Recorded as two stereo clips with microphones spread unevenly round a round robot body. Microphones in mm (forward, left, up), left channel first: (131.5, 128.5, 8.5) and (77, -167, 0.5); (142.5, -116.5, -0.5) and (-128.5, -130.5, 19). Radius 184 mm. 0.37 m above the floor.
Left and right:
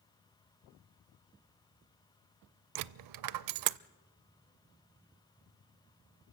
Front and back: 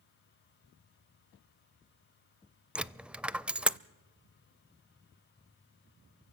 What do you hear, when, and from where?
2.8 s a dropped coin: 90° right, 0.5 m